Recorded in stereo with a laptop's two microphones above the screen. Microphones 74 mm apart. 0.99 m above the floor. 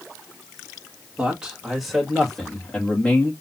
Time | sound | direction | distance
1.2 | a man speaking | 15° right (ahead or behind) | 1.7 m